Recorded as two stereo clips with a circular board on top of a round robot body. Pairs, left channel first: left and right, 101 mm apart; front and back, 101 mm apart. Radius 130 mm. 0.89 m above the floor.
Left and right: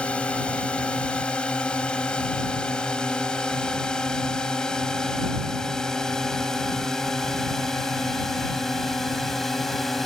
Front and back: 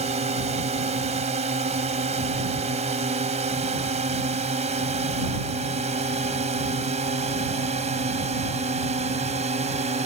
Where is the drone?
170° left; by 10.1 s straight behind.